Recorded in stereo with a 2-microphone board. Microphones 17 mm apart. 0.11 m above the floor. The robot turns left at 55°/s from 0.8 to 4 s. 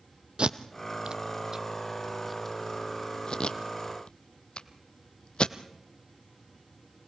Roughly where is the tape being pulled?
Right.